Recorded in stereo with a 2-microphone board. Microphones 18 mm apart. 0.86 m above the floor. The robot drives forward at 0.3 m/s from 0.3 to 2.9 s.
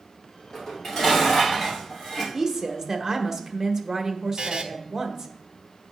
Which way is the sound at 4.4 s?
60° right (ahead or behind).